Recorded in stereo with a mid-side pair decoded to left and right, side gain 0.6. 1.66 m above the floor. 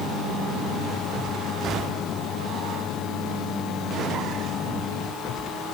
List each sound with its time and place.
Only background noise.